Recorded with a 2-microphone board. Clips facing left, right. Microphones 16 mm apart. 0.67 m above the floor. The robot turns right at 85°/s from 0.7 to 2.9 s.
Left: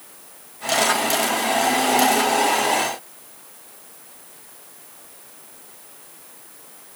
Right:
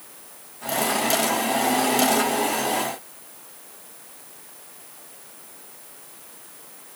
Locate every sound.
Only background noise.